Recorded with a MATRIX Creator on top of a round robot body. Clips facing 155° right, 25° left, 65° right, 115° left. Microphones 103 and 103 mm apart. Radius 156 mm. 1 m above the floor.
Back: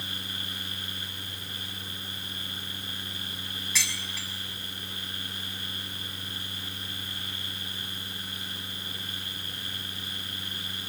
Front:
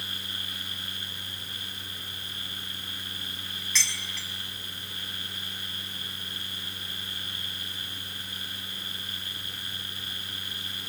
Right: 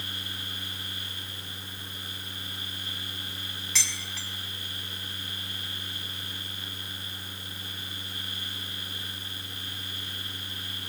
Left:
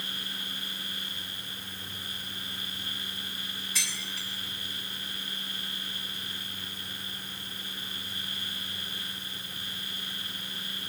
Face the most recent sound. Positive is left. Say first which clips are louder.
# even, right 3 dB
turn(degrees=-75)